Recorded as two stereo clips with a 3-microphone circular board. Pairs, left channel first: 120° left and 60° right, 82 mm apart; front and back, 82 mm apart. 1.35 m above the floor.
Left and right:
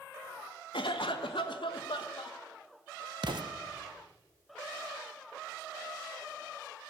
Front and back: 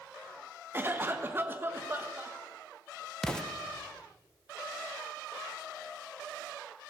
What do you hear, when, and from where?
0.7 s a cough: 120° left, 1.5 m
3.2 s an explosion: 80° right, 0.9 m